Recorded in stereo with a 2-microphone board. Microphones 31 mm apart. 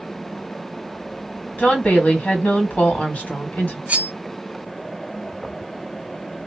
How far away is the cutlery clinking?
About 1.0 m.